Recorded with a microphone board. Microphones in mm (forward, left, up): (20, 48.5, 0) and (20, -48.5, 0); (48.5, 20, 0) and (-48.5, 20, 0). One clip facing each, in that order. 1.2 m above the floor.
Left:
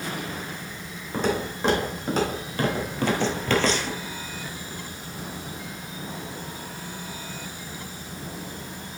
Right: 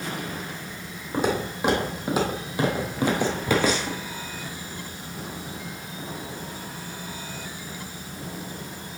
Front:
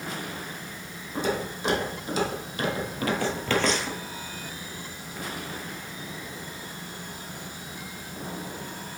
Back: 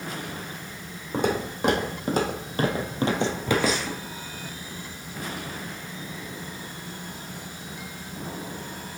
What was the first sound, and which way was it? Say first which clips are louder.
Footsteps: right 1 dB, back 3 dB; 165° right.